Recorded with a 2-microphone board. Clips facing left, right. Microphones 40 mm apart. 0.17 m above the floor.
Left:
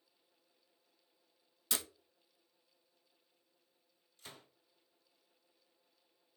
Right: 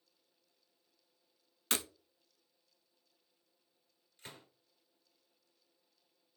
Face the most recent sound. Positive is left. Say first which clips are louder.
# right 2 dB
turn(degrees=-40)  # may be behind; listen again after turning